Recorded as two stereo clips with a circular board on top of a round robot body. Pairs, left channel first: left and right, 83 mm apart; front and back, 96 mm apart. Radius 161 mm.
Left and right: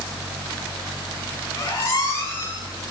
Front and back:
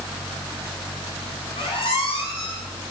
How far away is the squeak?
About 6 m.